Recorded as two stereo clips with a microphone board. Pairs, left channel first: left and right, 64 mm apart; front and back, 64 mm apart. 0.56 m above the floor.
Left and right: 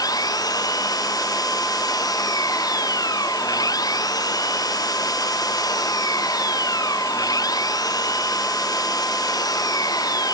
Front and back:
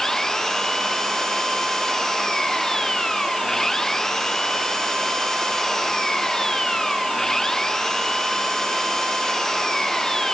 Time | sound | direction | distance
0.0 | an engine running | 80° left | ?